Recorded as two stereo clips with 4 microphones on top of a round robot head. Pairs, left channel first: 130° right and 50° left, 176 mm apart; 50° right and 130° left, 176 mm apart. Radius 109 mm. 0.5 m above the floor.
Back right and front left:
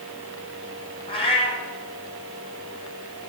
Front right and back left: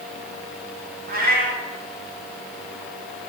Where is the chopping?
I don't hear chopping.